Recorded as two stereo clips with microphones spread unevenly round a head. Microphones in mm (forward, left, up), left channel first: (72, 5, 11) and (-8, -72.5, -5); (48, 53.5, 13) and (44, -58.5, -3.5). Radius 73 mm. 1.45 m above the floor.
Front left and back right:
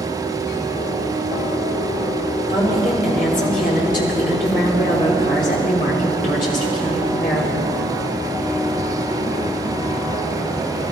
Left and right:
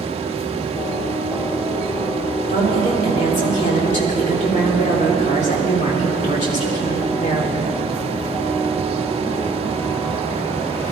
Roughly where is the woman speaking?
Left.